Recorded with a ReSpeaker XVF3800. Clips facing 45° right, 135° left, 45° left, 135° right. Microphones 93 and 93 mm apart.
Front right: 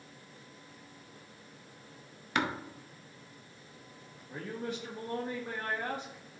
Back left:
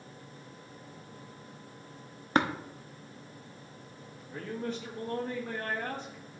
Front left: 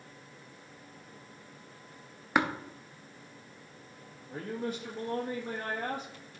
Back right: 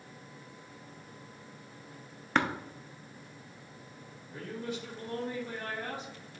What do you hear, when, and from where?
2.4 s tapping: 125° left, 0.7 m
4.3 s a man speaking: 35° left, 1.0 m